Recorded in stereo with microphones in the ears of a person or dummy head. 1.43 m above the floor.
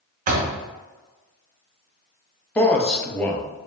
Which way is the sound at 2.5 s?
5° left (ahead or behind).